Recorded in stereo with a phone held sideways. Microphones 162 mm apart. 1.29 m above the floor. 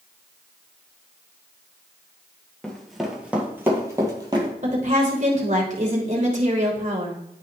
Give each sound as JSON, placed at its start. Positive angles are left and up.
{"t": 2.6, "sound": "running footsteps", "side_deg": 5, "distance_m": 1.6}
{"t": 4.6, "sound": "a woman speaking", "side_deg": -50, "distance_m": 3.0}